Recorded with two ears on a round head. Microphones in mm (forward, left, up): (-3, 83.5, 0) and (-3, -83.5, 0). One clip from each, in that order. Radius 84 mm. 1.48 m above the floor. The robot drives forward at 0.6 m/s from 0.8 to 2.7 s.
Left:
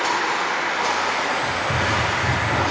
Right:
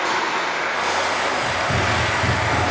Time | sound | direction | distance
0.0 | running water | 30° left (ahead or behind) | 0.8 m
1.4 | running footsteps | 35° right (ahead or behind) | 1.7 m